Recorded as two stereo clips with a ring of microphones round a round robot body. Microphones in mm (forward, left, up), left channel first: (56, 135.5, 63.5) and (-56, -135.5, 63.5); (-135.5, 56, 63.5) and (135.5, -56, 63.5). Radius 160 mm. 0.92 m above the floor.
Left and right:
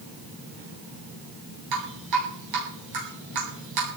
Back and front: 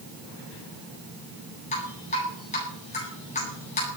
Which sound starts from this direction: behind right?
Dripping, at 1.7 s.